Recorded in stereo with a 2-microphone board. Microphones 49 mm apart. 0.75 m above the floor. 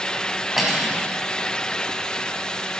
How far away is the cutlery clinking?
About 3.5 m.